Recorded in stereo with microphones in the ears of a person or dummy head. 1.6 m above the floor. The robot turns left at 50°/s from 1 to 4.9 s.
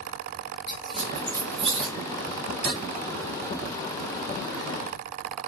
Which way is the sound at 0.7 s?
5° right (ahead or behind).